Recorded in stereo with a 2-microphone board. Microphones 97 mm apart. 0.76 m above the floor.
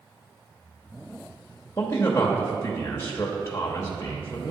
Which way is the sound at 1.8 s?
30° left (ahead or behind).